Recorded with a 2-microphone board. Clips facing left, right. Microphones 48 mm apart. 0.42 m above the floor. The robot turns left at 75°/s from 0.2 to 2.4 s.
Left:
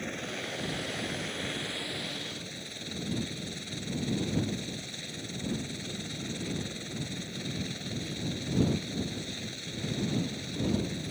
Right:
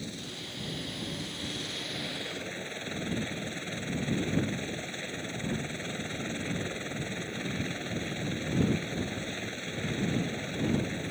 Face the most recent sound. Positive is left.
turn(degrees=-30)